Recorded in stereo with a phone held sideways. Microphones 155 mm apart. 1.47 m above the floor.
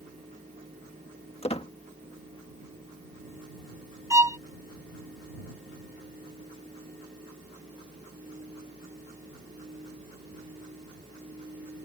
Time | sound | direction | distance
0.0 | a fan | 50° right (ahead or behind) | ?
1.4 | a squeak | 40° left (ahead or behind) | ?
4.1 | a violin | 20° right (ahead or behind) | ?